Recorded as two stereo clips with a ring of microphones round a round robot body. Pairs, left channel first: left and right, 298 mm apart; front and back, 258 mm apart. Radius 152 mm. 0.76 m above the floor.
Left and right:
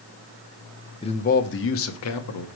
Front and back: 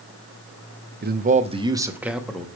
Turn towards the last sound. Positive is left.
turn(degrees=85)